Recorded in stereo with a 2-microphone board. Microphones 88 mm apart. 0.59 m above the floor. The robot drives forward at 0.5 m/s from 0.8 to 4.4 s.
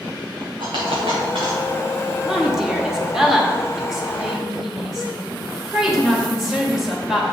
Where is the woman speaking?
5° right (ahead or behind), 0.9 m.